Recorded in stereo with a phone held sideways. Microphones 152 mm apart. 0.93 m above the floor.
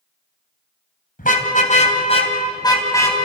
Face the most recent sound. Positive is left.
turn(degrees=15)  # may be behind; listen again after turning